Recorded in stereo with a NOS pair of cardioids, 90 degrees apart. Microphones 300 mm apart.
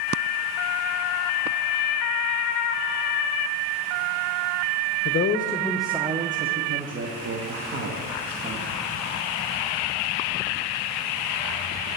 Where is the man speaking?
50° left, 0.6 m; by 8.6 s 55° right, 2 m.